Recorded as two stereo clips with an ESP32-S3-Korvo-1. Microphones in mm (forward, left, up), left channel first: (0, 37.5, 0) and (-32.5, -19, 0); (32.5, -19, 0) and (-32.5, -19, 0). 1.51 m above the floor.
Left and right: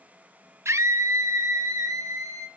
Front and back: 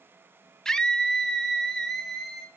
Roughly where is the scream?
Right.